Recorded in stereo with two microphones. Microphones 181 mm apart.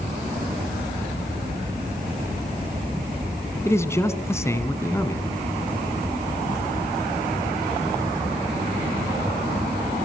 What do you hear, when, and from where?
3.6 s a man speaking: 15° left (ahead or behind), 2.5 m